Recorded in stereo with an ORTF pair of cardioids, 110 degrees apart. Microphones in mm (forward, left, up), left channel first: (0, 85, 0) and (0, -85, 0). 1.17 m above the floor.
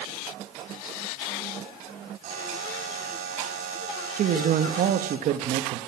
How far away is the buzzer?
About 2.5 m.